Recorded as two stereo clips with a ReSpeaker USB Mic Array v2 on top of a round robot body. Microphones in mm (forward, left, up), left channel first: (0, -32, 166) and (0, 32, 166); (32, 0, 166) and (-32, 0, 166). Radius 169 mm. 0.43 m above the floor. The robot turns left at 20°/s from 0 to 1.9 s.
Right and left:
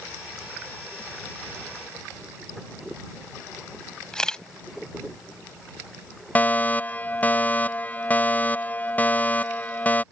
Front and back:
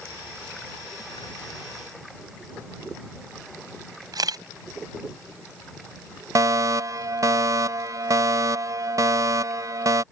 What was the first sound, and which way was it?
A camera shutter, 170° right.